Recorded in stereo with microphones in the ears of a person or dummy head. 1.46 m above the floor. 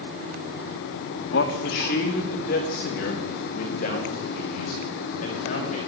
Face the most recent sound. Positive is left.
turn(degrees=40)  # may be behind; listen again after turning